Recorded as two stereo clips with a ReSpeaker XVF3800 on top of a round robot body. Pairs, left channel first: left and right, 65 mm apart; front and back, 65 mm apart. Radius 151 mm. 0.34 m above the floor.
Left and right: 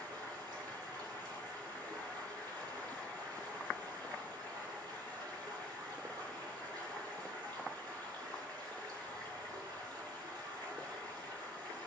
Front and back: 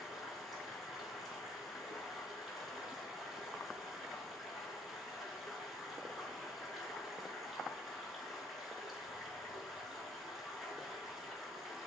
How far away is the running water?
About 4.5 m.